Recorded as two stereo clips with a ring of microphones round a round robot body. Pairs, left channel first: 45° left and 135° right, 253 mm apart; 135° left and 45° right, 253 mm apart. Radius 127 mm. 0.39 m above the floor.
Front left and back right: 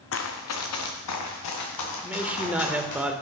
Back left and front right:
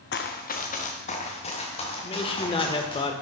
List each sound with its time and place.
0.1 s running footsteps: 85° left, 1.2 m; by 3.0 s 65° left, 5 m
2.0 s a man speaking: 150° left, 0.8 m